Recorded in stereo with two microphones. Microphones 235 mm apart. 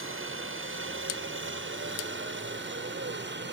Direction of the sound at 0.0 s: 60° right (ahead or behind).